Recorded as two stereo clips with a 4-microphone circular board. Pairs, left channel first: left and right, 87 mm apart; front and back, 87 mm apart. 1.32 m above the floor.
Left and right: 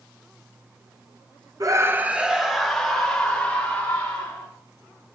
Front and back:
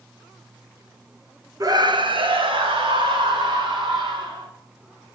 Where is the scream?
135° right, 0.9 m; by 4.5 s 165° left, 4.5 m.